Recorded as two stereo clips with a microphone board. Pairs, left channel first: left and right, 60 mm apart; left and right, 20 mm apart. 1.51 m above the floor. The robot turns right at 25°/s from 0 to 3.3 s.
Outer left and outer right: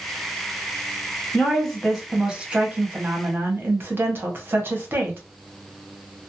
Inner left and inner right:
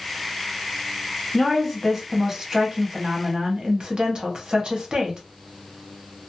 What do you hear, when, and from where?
1.3 s a woman speaking: 170° left, 1.0 m; by 5.2 s 140° right, 1.0 m